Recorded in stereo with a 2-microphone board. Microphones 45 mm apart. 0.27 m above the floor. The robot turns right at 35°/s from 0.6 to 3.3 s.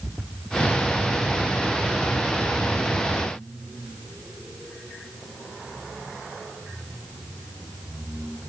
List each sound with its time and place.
Only background noise.